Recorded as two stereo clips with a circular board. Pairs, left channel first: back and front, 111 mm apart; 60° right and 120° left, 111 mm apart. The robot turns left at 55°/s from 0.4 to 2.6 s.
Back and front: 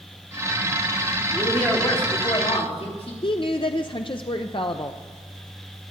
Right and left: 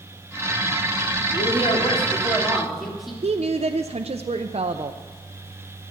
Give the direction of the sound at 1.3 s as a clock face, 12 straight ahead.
3 o'clock.